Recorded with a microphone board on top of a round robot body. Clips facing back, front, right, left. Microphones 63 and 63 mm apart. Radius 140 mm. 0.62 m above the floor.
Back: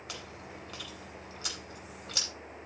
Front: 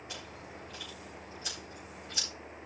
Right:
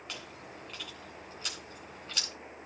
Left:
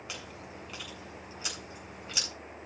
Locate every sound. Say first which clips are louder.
0.1 s chewing: back 2 dB, left 1 dB; 170° left, 8.5 m